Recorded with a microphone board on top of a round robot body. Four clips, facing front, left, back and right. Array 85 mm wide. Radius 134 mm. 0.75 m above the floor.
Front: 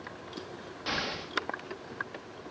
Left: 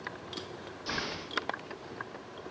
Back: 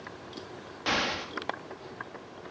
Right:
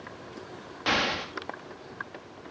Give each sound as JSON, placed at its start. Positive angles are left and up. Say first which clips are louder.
{"t": 0.9, "sound": "an explosion", "louder": "right 10 dB, back 5 dB", "azimuth_deg": -110, "distance_m": 1.5}